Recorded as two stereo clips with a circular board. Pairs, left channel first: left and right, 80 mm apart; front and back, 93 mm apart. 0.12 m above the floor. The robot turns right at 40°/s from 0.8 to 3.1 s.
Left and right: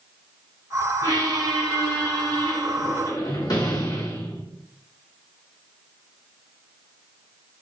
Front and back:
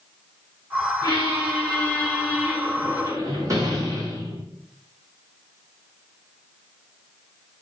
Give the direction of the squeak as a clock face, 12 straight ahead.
11 o'clock.